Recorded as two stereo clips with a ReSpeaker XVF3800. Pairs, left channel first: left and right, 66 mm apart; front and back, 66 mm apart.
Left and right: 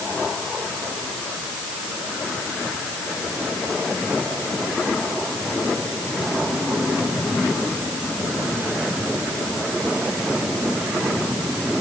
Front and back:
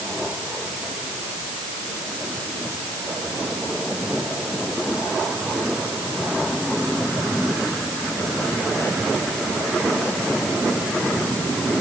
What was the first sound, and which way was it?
Only background noise.